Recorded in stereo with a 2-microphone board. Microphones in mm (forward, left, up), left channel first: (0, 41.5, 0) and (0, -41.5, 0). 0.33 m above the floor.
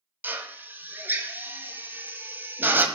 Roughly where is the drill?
Right.